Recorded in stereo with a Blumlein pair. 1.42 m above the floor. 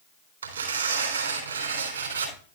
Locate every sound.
0.4 s tearing paper: 70° right, 3.5 m